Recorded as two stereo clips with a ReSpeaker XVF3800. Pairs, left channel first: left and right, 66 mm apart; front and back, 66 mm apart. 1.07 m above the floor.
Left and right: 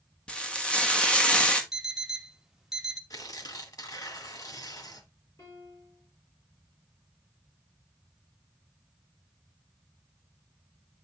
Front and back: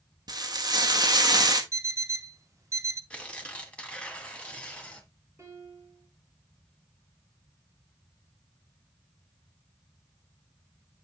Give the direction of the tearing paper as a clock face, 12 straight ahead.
10 o'clock.